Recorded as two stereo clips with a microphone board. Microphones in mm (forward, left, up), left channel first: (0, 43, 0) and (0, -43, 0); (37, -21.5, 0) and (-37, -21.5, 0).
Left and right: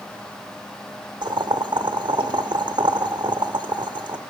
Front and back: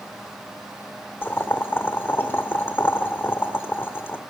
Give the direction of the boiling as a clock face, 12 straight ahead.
2 o'clock.